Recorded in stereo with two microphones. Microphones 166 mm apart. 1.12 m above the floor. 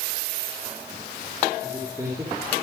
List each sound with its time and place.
1.6 s a man speaking: 20° right (ahead or behind), 2.5 m